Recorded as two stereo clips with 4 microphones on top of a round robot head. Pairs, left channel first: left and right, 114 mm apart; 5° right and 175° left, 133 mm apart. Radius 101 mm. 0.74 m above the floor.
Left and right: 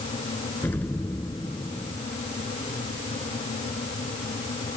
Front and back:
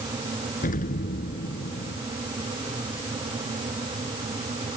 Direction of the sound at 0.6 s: 10° left.